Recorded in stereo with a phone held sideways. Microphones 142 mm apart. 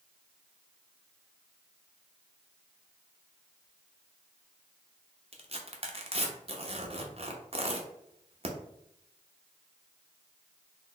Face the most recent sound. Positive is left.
turn(degrees=-45)  # may be behind; listen again after turning